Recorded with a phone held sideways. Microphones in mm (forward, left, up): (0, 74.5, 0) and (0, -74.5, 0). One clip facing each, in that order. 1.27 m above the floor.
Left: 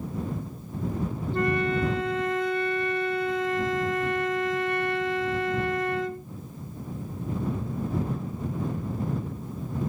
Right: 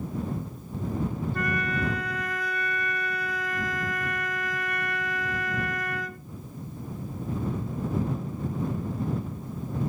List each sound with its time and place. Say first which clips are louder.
1.3 s a flute: left 5 dB; 25° left (ahead or behind)